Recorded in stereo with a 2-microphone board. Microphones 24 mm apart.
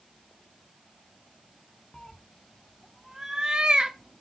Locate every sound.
1.9 s a cat meowing: 30° left (ahead or behind), 0.9 m; by 4.2 s 50° right (ahead or behind), 1.2 m